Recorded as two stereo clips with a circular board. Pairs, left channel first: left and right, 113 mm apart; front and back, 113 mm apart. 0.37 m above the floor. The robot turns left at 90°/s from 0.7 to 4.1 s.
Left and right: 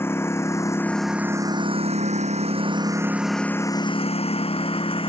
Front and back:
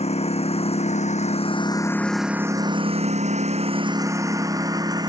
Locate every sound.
0.0 s a lawn mower: 20° left; by 5.1 s 125° left